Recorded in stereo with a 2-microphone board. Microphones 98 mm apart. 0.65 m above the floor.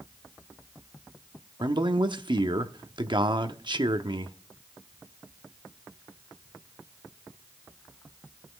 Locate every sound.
1.6 s a man speaking: 50° right (ahead or behind), 1.0 m